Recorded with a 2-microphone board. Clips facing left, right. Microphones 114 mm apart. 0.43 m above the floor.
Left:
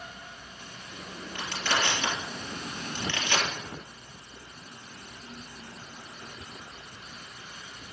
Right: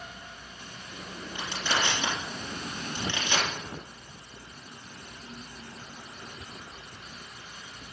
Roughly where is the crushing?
Centre.